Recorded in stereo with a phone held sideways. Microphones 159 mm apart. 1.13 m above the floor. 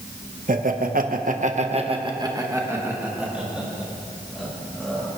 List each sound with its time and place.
0.5 s laughter: 60° right (ahead or behind), 1.3 m; by 5.1 s centre (ahead or behind), 3.5 m